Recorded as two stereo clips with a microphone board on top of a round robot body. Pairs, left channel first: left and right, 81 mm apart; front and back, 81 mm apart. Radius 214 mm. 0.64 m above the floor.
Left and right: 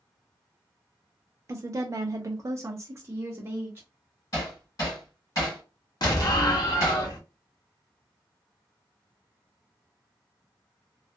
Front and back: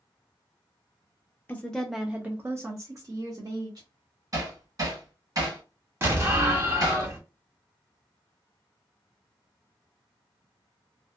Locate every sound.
1.5 s a woman speaking: 55° right, 0.6 m; by 3.9 s 150° right, 1.3 m
4.3 s hammering: 135° left, 1.8 m
6.0 s an explosion: 125° left, 1.0 m